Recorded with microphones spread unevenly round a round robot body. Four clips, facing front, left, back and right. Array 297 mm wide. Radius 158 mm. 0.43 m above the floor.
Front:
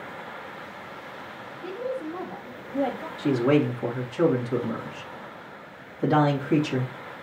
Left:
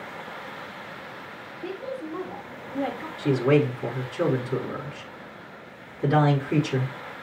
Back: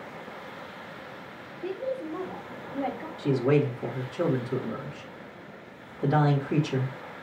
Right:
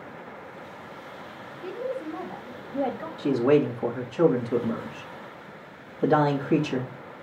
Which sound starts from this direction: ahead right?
A woman speaking, at 1.6 s.